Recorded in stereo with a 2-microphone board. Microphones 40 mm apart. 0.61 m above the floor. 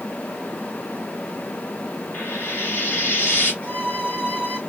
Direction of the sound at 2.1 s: 65° left (ahead or behind).